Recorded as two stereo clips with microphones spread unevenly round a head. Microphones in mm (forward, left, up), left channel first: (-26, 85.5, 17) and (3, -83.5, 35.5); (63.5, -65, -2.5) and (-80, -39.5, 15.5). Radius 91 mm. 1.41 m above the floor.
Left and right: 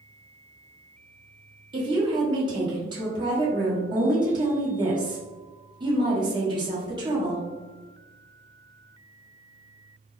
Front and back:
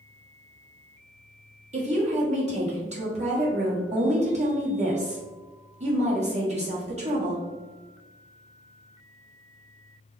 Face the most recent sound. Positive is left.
turn(degrees=-145)